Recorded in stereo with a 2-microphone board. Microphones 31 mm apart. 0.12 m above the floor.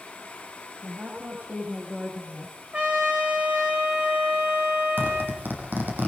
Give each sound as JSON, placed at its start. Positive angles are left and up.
{"t": 0.8, "sound": "a woman speaking", "side_deg": -60, "distance_m": 7.0}
{"t": 2.7, "sound": "a trumpet", "side_deg": -35, "distance_m": 2.5}
{"t": 5.0, "sound": "a zipper", "side_deg": -75, "distance_m": 6.5}